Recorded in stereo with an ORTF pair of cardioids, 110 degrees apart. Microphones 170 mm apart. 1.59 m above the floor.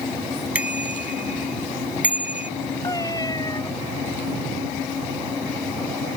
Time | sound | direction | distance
0.6 | a bicycle bell | 5° right | ?
2.8 | a cat meowing | 25° left | ?